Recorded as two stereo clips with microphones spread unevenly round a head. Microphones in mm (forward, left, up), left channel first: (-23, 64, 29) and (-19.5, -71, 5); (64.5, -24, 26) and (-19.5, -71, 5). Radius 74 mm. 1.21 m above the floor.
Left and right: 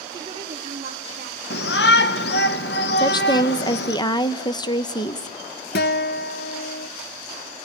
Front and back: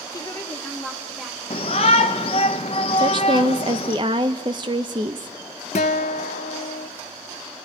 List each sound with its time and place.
0.1 s a woman speaking: 25° right, 1.1 m; by 1.4 s 60° right, 2.5 m
1.5 s a shout: 80° left, 0.9 m
3.0 s a woman speaking: 155° left, 0.8 m
5.8 s a guitar: 65° left, 0.7 m